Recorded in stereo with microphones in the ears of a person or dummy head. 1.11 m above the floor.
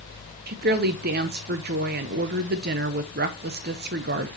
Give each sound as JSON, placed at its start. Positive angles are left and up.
{"t": 0.5, "sound": "a woman speaking", "side_deg": -45, "distance_m": 0.7}